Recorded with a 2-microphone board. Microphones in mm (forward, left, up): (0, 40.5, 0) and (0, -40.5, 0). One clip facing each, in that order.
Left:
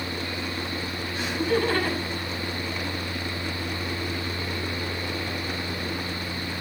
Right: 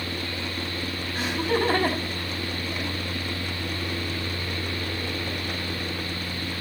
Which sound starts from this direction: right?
Laughter, at 1.1 s.